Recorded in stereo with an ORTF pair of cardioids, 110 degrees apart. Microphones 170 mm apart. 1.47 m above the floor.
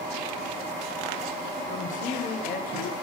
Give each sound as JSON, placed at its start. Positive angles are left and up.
{"t": 1.7, "sound": "a man speaking", "azimuth_deg": 45, "distance_m": 1.4}